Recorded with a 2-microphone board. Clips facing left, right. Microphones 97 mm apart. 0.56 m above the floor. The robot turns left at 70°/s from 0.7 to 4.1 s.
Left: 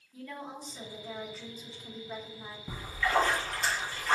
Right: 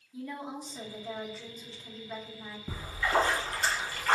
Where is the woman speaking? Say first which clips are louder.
Right 3 dB; 15° right (ahead or behind), 0.8 m; by 2.6 s 25° left (ahead or behind), 0.8 m.